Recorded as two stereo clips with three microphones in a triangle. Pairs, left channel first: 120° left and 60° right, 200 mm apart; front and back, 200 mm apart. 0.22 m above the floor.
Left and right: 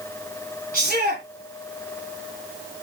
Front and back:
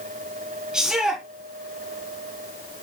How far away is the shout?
About 2.5 m.